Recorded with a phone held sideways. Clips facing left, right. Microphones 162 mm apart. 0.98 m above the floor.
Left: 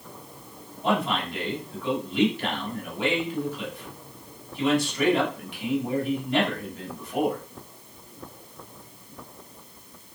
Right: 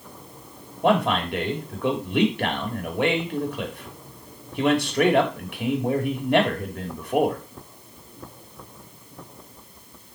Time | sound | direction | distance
0.8 | a man speaking | 60° right (ahead or behind) | 2.5 m